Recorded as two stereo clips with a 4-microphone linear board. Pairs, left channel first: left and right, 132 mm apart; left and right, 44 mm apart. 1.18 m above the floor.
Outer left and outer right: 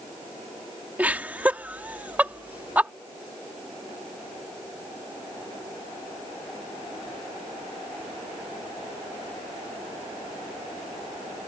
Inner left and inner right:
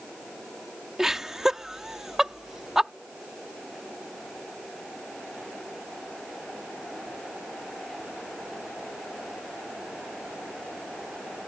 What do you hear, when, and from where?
1.0 s laughter: 10° right (ahead or behind)